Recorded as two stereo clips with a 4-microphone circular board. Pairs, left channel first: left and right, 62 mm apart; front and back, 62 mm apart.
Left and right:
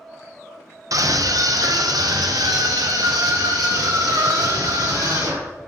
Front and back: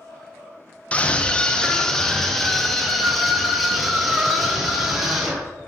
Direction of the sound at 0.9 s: 70° right.